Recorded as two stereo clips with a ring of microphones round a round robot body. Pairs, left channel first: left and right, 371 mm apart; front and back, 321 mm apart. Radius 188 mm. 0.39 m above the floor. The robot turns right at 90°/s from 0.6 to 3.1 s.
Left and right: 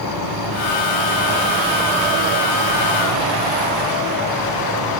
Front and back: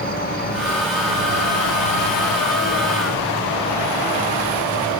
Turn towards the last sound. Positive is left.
turn(degrees=-75)